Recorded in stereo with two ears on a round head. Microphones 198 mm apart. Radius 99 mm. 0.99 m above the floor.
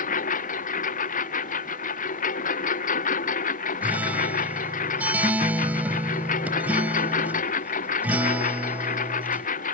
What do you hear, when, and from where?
0.0 s a lawn mower: 35° left (ahead or behind)
3.8 s a guitar: 5° right (ahead or behind)